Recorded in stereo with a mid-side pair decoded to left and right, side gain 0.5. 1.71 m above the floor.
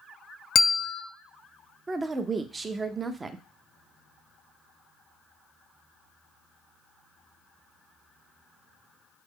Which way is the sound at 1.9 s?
30° right.